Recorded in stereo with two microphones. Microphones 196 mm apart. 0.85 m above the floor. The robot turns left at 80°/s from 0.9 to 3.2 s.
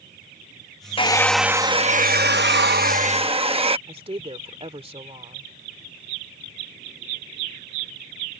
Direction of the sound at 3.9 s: 30° right (ahead or behind).